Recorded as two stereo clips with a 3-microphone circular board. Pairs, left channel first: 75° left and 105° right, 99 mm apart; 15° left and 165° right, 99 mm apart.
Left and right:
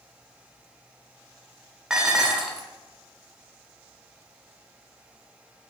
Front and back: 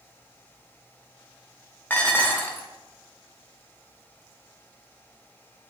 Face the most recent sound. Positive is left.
turn(degrees=-30)